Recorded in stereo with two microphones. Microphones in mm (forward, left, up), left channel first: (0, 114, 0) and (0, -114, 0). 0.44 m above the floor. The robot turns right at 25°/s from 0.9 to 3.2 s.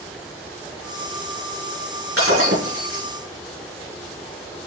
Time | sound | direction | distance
2.2 | breaking glass | 80° right | 5 m